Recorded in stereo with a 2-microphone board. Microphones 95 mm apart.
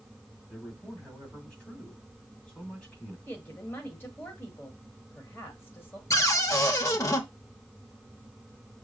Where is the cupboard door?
35° left (ahead or behind), 0.8 m.